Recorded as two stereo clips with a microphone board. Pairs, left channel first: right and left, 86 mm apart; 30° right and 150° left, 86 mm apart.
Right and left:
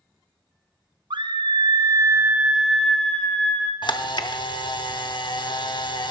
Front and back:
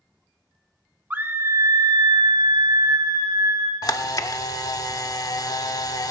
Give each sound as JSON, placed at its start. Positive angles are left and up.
{"t": 1.1, "sound": "a scream", "azimuth_deg": 80, "distance_m": 0.7}
{"t": 3.8, "sound": "a camera shutter", "azimuth_deg": -70, "distance_m": 0.7}